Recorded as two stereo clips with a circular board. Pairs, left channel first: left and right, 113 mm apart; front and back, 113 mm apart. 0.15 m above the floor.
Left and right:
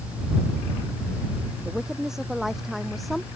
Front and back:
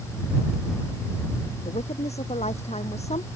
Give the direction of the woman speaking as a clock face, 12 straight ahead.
12 o'clock.